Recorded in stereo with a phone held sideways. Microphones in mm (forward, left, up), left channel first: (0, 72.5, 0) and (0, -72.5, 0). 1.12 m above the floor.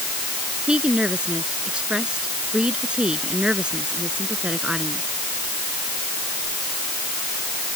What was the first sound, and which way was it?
A woman speaking, 5° right (ahead or behind).